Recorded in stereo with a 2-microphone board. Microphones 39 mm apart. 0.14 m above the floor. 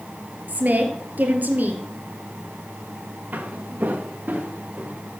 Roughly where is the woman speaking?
Right.